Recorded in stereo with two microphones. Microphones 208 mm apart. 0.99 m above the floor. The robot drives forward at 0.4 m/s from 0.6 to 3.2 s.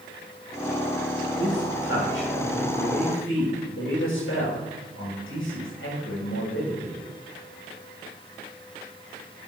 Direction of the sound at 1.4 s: 70° left (ahead or behind).